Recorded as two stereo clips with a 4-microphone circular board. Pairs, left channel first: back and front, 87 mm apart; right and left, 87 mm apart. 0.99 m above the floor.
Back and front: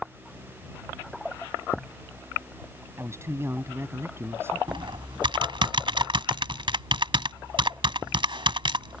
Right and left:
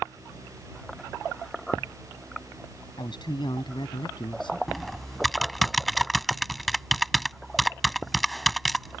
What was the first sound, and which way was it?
A man speaking, 60° right.